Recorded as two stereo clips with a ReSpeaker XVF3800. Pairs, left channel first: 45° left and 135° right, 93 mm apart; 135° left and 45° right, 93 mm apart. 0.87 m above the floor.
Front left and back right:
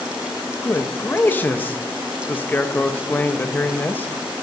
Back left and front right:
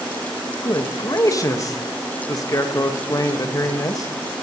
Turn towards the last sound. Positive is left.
turn(degrees=105)